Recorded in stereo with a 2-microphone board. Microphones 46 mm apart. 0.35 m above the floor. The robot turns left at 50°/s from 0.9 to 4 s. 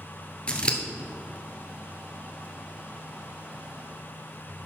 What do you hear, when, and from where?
0.5 s scissors: 25° left (ahead or behind), 1.3 m